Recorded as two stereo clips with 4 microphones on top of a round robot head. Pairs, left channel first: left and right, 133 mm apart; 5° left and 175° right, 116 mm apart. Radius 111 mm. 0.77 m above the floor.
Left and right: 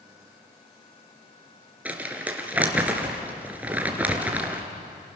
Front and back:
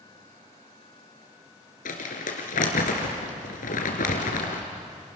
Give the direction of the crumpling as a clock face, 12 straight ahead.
12 o'clock.